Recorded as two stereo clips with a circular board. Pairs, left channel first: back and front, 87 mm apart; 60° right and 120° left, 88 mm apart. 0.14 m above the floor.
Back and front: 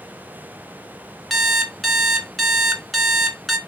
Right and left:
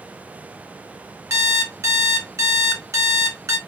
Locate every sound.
1.3 s an alarm clock: 90° left, 0.9 m